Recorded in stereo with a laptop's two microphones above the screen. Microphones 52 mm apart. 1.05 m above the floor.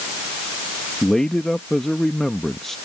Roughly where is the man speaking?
Centre.